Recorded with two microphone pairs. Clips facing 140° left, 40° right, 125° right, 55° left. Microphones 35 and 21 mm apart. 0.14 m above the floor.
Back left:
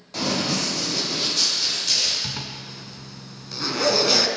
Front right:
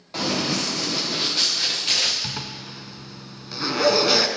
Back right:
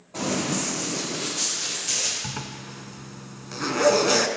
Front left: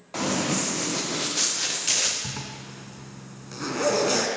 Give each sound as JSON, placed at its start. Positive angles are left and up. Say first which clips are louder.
{"t": 0.1, "sound": "running footsteps", "louder": "even, front left 1 dB", "azimuth_deg": 30, "distance_m": 4.0}
{"t": 2.2, "sound": "a zipper", "louder": "even, back right 1 dB", "azimuth_deg": -95, "distance_m": 0.6}